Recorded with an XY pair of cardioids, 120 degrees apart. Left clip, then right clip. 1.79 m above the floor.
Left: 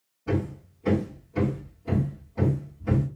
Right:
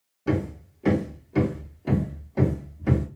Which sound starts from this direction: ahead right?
Hammering, at 0.3 s.